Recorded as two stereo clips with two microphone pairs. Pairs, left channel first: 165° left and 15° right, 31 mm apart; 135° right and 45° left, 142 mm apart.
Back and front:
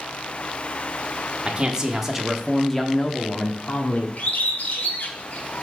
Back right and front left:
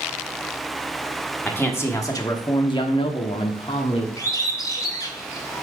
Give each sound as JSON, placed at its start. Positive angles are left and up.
{"t": 1.4, "sound": "a man speaking", "azimuth_deg": -60, "distance_m": 1.1}
{"t": 4.2, "sound": "a bird", "azimuth_deg": 165, "distance_m": 1.2}